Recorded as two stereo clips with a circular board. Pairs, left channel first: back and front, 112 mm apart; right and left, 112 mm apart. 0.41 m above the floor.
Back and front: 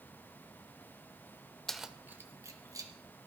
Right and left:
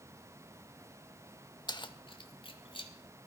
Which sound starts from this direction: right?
Keys jangling, at 1.7 s.